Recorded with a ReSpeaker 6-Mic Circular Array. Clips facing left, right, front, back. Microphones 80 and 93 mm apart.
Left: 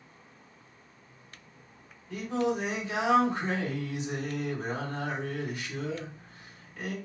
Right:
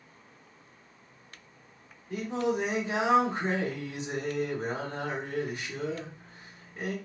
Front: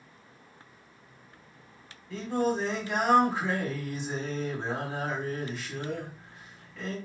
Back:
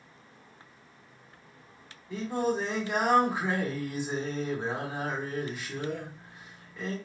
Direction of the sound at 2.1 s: 110° right.